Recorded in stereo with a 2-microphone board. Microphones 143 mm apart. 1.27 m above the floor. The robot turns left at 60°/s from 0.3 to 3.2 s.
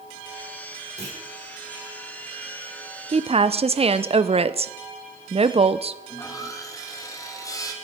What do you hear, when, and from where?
1.0 s a clunk: 55° right (ahead or behind), 5 m; by 1.2 s 40° right (ahead or behind), 5 m
3.1 s a woman speaking: 50° right (ahead or behind), 0.7 m; by 6.0 s 45° right (ahead or behind), 0.7 m
6.1 s sawing: 25° left (ahead or behind), 2 m